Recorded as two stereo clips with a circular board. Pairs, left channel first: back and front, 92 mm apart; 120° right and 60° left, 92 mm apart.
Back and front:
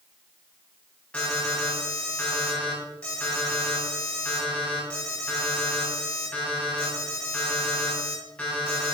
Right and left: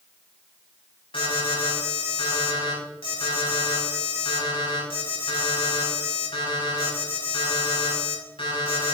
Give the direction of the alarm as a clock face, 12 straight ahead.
3 o'clock.